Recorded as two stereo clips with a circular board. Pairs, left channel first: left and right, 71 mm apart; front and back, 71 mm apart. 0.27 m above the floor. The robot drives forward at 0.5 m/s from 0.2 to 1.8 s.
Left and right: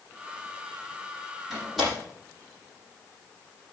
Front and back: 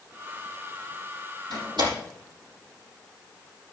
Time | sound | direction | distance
1.5 | a door slam | straight behind | 6.5 m